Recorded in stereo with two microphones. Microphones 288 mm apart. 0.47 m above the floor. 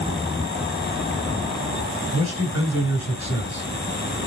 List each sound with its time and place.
2.1 s a man speaking: 45° left (ahead or behind), 6.5 m